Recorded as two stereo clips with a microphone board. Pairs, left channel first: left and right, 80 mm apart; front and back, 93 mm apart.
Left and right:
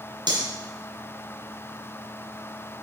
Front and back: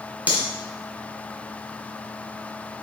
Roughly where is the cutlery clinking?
Right.